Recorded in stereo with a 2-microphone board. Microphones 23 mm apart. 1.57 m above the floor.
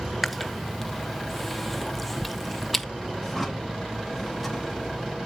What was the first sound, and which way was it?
Chewing, centre (ahead or behind).